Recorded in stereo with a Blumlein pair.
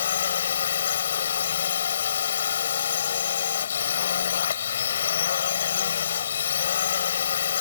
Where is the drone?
65° left.